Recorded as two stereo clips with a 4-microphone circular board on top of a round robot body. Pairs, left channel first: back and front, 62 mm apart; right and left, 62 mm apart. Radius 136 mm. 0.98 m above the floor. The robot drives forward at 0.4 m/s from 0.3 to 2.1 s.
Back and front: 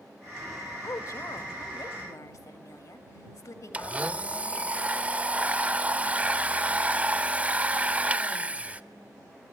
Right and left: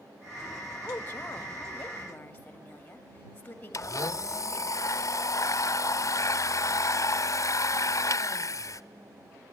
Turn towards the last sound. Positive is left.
turn(degrees=-65)